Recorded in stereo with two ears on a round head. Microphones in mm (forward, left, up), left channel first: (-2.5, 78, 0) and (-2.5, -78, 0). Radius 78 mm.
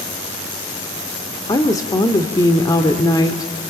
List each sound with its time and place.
1.5 s a woman speaking: 20° left (ahead or behind), 1.7 m